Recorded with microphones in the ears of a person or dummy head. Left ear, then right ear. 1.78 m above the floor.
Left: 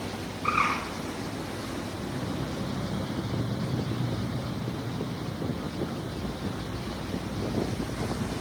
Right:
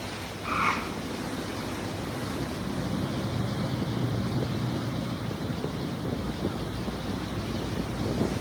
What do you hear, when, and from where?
0.4 s a bird: 25° left (ahead or behind), 9.5 m